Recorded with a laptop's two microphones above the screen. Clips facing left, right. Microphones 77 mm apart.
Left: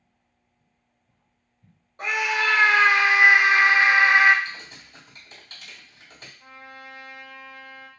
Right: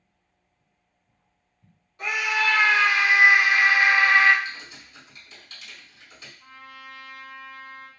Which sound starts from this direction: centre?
A trumpet, at 6.4 s.